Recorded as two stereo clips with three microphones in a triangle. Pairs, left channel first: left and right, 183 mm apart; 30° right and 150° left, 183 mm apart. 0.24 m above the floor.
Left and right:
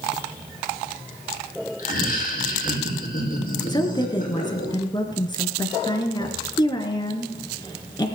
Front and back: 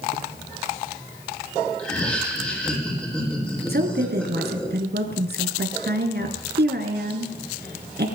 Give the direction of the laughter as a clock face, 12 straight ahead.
10 o'clock.